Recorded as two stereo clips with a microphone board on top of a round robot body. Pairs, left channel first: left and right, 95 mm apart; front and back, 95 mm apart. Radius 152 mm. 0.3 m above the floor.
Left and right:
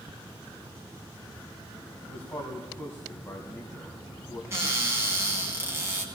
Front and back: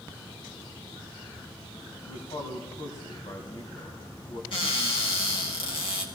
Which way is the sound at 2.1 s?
25° left.